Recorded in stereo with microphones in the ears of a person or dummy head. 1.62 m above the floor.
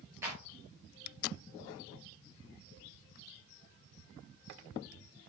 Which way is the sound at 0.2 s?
20° right (ahead or behind).